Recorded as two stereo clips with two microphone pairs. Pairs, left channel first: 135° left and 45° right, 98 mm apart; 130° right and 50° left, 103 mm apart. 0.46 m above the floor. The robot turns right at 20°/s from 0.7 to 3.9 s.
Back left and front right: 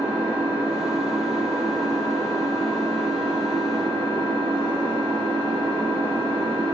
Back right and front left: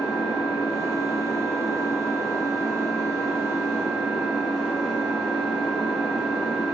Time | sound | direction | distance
0.0 | an engine running | 105° right | 1.4 m